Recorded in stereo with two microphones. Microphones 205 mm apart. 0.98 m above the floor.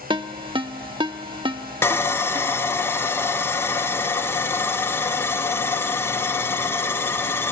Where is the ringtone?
25° right (ahead or behind), 0.6 m.